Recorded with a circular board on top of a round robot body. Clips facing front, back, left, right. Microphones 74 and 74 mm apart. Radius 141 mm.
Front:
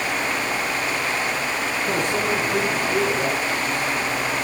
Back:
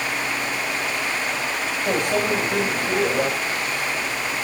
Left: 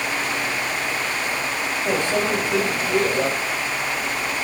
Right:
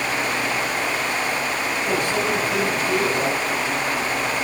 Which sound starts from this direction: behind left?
A microwave, at 1.9 s.